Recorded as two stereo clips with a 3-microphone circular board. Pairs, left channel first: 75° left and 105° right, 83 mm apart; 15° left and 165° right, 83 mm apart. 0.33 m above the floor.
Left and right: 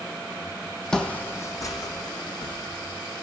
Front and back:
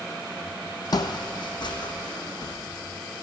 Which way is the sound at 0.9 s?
10° right.